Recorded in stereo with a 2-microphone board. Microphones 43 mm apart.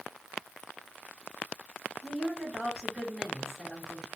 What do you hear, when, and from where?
2.0 s a woman speaking: 5° right (ahead or behind), 2 m